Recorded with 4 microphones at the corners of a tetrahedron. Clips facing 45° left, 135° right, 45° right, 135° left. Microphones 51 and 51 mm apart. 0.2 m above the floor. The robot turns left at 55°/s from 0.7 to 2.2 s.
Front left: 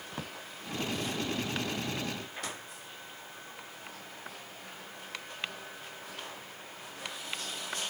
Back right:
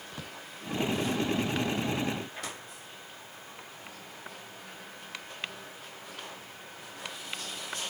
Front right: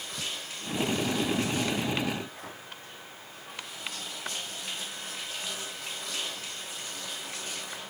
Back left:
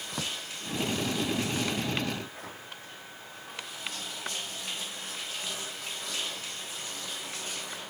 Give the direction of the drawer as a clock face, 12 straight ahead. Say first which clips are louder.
Front left 3 dB, back left 2 dB; 8 o'clock.